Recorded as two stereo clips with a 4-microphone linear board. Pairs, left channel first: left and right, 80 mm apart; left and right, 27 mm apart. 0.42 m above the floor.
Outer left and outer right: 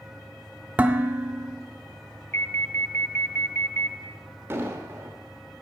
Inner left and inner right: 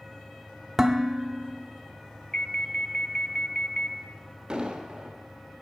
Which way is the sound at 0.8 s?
20° right (ahead or behind).